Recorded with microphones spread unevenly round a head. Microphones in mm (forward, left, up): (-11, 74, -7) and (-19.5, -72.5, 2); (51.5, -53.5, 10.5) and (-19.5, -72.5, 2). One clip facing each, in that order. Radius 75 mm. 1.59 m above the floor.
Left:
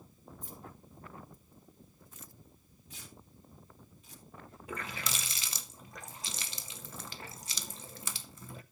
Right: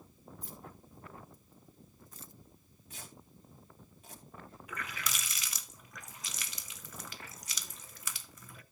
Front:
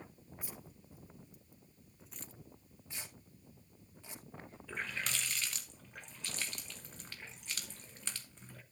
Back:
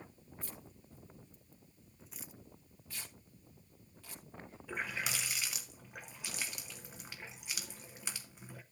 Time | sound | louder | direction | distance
0.4 | keys jangling | left 1 dB, even | 60° right | 2.5 m
2.9 | tearing paper | right 1 dB, front 1 dB | 50° right | 2.5 m
4.7 | a running tap | left 2 dB, back 1 dB | 110° left | 0.6 m